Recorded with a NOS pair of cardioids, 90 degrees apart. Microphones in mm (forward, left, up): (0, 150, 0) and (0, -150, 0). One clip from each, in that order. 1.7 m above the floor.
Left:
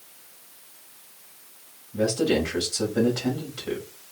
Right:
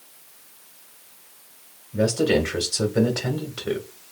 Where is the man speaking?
30° right, 1.9 m.